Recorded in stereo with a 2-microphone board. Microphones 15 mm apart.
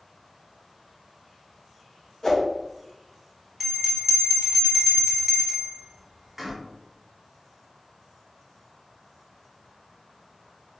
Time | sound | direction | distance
2.2 | a whoosh | 30° left (ahead or behind) | 0.9 m
3.6 | a bell | 5° right (ahead or behind) | 1.6 m